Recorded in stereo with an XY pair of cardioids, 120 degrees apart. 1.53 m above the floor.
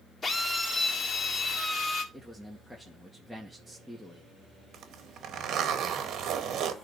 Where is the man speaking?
5° left, 1.9 m.